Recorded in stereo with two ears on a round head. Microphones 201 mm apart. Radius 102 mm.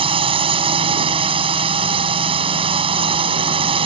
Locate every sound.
0.0 s a drone: 25° right (ahead or behind)